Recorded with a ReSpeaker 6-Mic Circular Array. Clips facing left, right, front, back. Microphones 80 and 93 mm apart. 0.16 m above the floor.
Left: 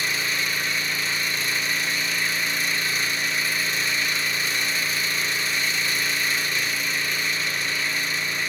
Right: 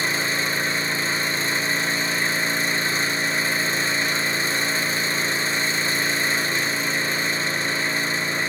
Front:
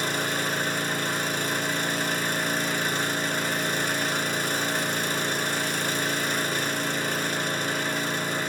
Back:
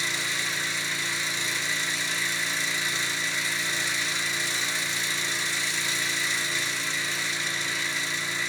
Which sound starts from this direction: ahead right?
An engine running, at 0.0 s.